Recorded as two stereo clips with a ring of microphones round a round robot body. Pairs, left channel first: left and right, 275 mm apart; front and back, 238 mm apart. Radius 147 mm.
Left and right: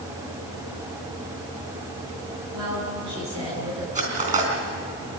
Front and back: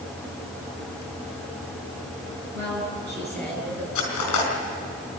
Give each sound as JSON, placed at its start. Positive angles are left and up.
{"t": 2.5, "sound": "a woman speaking", "azimuth_deg": -120, "distance_m": 8.0}
{"t": 4.0, "sound": "cutlery clinking", "azimuth_deg": -25, "distance_m": 4.0}